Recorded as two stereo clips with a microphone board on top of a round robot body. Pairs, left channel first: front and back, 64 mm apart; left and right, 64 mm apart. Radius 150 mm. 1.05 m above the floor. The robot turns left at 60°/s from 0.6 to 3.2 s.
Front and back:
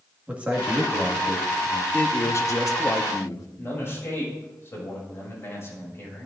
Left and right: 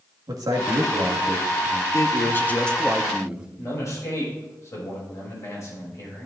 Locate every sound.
0.3 s a man speaking: 110° right, 1.8 m; by 1.8 s 175° left, 1.8 m
1.9 s a man speaking: 60° left, 1.1 m; by 3.5 s 15° right, 1.1 m
3.6 s a man speaking: 50° left, 5 m